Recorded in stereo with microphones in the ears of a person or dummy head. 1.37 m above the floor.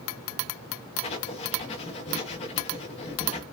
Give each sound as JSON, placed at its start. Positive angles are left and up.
{"t": 1.0, "sound": "writing", "side_deg": 35, "distance_m": 0.9}